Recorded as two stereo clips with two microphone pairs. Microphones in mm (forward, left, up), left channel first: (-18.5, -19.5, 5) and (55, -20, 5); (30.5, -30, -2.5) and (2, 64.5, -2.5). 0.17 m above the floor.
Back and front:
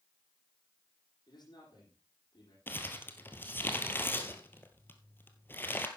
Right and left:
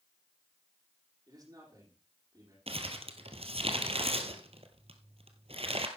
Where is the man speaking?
160° left, 7 m.